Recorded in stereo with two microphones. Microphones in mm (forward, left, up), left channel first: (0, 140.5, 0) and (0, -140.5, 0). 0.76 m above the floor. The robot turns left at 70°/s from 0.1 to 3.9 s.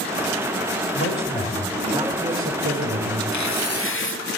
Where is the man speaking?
65° left, 3.5 m; by 3.2 s 95° right, 3.5 m.